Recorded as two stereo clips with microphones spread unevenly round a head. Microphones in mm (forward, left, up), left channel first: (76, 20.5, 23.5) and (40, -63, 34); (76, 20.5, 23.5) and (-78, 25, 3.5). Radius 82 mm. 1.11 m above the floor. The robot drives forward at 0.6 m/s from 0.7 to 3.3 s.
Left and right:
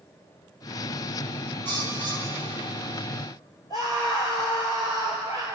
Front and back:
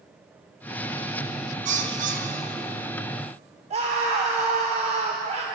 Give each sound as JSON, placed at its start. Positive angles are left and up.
{"t": 1.6, "sound": "a bird", "azimuth_deg": 145, "distance_m": 3.5}
{"t": 3.7, "sound": "a scream", "azimuth_deg": 130, "distance_m": 4.0}